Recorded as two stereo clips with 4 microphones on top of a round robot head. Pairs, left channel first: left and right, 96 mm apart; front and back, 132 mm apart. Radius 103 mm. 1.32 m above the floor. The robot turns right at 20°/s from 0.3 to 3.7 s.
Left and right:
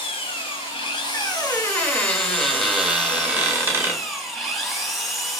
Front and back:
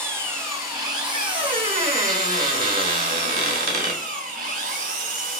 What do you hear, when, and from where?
0.0 s an engine running: 110° left, 1.2 m; by 5.4 s straight behind, 1.2 m
1.1 s a squeak: 150° left, 1.4 m; by 4.0 s 160° right, 1.4 m